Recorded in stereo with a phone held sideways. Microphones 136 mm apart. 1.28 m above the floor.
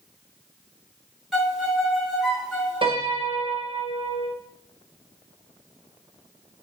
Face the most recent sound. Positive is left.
turn(degrees=-40)  # may be behind; listen again after turning